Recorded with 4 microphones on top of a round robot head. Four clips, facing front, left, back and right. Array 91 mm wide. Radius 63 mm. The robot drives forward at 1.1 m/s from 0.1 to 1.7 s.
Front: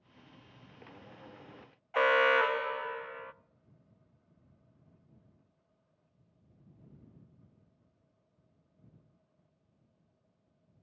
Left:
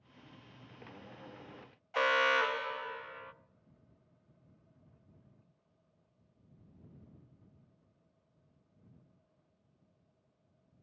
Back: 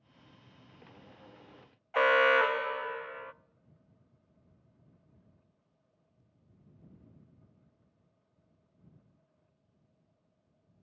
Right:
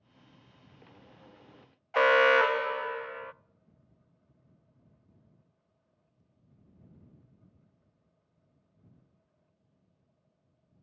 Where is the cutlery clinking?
I don't hear cutlery clinking.